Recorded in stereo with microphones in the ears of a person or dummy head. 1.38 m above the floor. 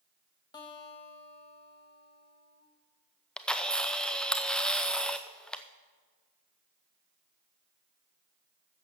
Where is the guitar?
25° left (ahead or behind), 1.7 m.